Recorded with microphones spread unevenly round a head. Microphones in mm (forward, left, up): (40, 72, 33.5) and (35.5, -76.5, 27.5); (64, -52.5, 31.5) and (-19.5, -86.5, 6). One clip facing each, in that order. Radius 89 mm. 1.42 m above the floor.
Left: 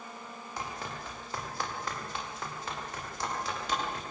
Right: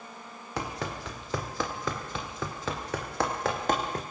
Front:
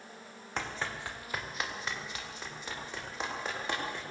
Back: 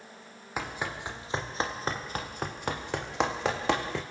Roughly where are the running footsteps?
Right.